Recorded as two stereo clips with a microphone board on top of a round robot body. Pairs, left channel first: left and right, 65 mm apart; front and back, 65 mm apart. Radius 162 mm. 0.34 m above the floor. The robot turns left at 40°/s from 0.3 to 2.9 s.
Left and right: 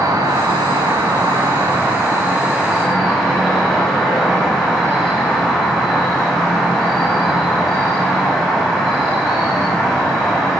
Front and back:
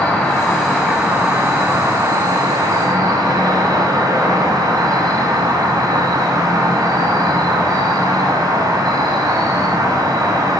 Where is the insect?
80° right, 5.5 m; by 10.6 s 175° left, 5.5 m.